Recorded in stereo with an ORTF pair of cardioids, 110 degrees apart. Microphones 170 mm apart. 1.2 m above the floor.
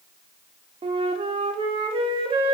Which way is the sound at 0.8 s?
35° right.